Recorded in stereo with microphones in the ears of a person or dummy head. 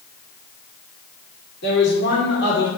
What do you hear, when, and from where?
1.6 s a man speaking: 60° left (ahead or behind), 2 m